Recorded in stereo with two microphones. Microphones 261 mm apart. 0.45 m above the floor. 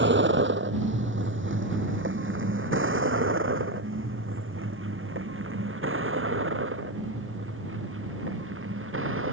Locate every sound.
0.0 s a vehicle: 45° right (ahead or behind); by 9.3 s 50° right (ahead or behind)